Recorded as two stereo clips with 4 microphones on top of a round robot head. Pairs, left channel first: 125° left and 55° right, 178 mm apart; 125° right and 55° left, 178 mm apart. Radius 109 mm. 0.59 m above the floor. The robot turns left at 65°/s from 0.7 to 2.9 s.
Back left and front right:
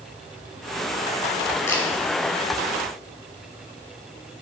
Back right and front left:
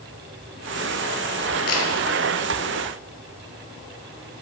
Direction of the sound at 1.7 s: 160° right.